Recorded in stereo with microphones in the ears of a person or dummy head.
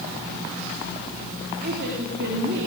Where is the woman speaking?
50° right (ahead or behind), 3.5 m; by 2.7 s 65° right (ahead or behind), 3 m.